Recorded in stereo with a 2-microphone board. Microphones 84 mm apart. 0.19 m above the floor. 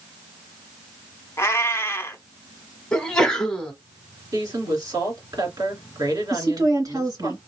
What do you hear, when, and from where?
1.4 s a cat meowing: 30° left (ahead or behind), 0.7 m
2.9 s a sneeze: 10° left (ahead or behind), 1.5 m
4.3 s a woman speaking: 50° right (ahead or behind), 2 m
6.3 s a woman speaking: 50° right (ahead or behind), 2 m